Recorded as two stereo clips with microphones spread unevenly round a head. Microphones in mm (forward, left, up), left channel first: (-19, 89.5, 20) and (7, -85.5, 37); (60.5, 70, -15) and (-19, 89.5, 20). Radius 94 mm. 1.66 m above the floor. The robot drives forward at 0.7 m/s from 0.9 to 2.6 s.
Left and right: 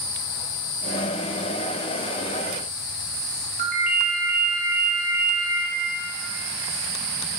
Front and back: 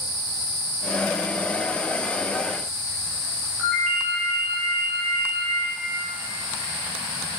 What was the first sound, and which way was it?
A ringtone, 120° right.